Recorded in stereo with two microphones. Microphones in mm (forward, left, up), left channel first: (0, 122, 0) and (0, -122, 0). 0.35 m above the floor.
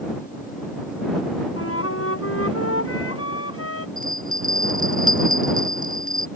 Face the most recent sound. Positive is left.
turn(degrees=-35)  # may be behind; listen again after turning